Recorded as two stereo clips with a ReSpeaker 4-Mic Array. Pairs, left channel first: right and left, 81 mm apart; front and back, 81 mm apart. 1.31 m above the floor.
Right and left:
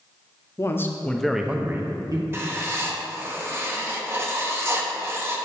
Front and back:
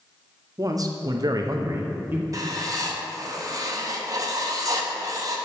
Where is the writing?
145° left, 0.9 m.